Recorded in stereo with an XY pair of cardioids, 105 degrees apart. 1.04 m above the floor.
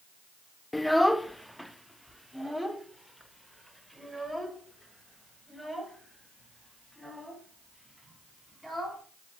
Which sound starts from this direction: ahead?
A child speaking, at 0.7 s.